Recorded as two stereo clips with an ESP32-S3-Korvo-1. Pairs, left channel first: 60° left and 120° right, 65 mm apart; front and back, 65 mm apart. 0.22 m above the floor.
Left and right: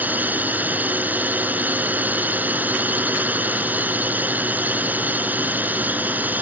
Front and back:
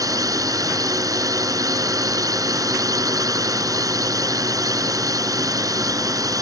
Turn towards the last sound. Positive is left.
turn(degrees=180)